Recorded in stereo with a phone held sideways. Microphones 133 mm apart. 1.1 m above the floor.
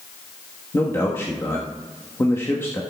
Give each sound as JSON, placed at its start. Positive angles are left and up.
{"t": 0.7, "sound": "a man speaking", "side_deg": 20, "distance_m": 1.2}